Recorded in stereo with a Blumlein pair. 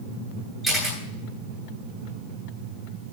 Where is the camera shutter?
15° right, 9.5 m.